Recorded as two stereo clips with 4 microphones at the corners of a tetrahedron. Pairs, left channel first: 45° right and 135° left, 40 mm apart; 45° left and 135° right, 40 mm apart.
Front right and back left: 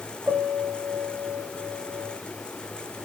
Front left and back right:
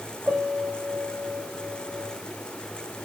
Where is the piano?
170° left, 6 m.